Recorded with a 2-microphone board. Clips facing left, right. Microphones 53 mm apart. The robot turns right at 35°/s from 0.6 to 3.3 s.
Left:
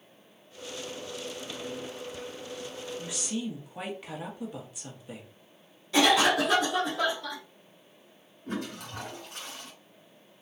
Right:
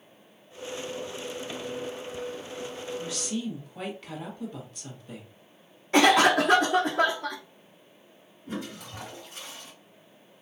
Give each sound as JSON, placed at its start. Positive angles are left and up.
{"t": 3.0, "sound": "a woman speaking", "side_deg": 20, "distance_m": 1.1}
{"t": 5.9, "sound": "a cough", "side_deg": -45, "distance_m": 0.6}
{"t": 8.5, "sound": "a toilet flushing", "side_deg": 65, "distance_m": 1.7}